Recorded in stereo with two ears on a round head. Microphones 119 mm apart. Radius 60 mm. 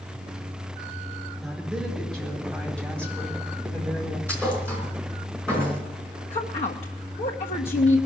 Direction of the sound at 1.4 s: Centre (ahead or behind).